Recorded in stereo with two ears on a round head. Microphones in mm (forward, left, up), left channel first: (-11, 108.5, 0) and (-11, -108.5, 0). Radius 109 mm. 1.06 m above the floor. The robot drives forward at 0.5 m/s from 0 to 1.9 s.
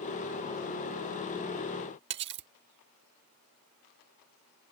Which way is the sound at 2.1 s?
45° right (ahead or behind).